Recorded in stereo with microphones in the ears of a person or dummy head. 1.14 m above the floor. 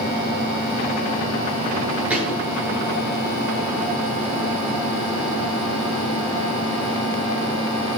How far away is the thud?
About 9.5 m.